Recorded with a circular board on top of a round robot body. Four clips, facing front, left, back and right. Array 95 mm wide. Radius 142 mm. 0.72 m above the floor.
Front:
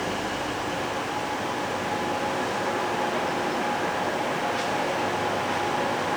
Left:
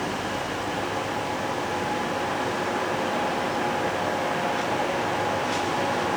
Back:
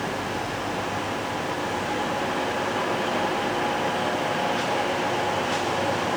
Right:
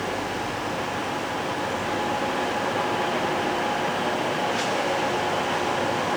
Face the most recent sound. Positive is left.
No sound to turn to.